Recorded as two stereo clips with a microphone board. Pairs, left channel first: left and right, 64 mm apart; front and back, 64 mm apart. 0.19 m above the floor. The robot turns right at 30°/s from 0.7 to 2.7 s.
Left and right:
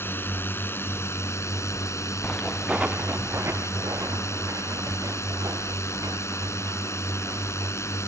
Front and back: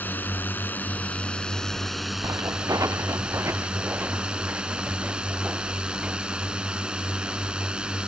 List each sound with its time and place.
0.0 s a drone: 50° left; by 8.1 s 110° left
2.2 s footsteps: 160° left; by 8.0 s 105° right